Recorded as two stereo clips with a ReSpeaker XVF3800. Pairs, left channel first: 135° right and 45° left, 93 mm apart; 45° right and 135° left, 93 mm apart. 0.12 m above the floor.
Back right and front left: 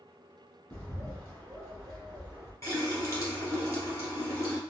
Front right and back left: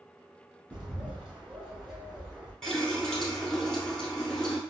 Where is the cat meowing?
No cat meowing in this recording.